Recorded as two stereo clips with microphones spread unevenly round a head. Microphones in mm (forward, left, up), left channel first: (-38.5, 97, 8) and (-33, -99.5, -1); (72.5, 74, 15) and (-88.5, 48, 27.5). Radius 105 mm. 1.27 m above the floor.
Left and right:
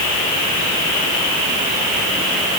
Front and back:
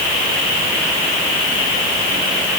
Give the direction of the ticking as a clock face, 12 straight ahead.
No ticking in this recording.